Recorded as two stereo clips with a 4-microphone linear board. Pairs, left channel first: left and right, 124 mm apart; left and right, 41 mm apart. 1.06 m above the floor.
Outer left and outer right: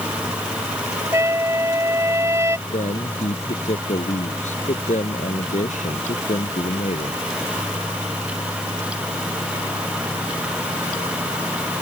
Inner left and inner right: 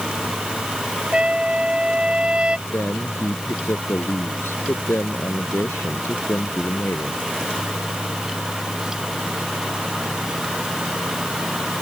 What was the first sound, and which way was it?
A trumpet, 20° right (ahead or behind).